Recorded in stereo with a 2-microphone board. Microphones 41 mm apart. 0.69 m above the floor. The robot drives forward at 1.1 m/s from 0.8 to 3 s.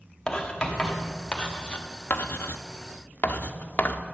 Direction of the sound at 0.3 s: 15° left (ahead or behind).